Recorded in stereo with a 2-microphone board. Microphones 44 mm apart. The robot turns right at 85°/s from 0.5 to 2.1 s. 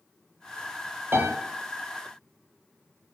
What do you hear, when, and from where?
1.1 s a piano: 65° right (ahead or behind), 0.8 m; by 1.3 s 50° right (ahead or behind), 0.8 m